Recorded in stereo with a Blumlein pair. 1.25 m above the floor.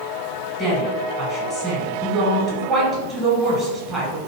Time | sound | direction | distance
0.6 | a woman speaking | straight ahead | 1.3 m